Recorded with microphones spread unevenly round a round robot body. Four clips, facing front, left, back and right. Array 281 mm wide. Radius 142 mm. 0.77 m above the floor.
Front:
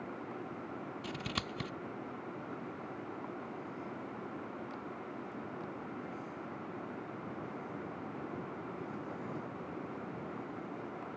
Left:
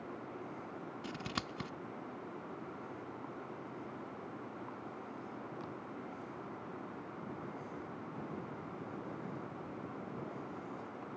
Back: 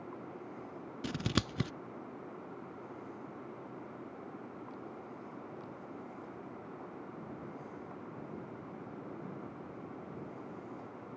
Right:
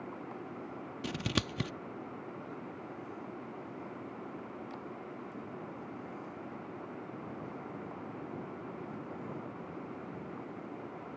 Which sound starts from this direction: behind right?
Scissors, at 1.0 s.